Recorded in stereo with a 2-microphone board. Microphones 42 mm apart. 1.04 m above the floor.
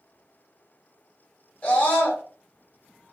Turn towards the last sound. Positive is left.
turn(degrees=35)  # may be behind; listen again after turning